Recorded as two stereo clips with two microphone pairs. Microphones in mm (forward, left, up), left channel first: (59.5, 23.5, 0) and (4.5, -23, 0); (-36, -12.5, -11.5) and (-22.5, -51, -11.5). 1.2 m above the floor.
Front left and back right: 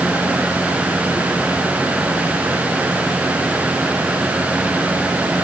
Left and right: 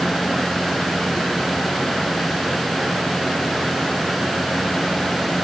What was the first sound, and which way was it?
Only background noise.